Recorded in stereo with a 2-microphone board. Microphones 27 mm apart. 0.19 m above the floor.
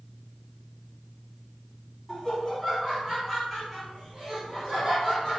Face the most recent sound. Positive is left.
turn(degrees=5)  # may be behind; listen again after turning